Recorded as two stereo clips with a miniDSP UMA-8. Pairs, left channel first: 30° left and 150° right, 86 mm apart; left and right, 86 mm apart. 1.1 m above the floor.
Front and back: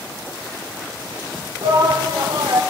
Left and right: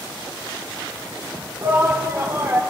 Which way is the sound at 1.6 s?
140° right.